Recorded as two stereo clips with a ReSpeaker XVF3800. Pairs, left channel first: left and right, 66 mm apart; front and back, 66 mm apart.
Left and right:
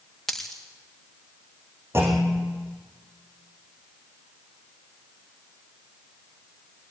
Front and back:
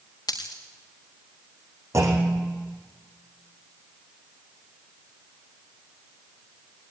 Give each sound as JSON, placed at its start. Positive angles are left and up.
{"t": 0.3, "sound": "a dropped coin", "azimuth_deg": 5, "distance_m": 4.5}
{"t": 1.9, "sound": "a clunk", "azimuth_deg": -140, "distance_m": 4.5}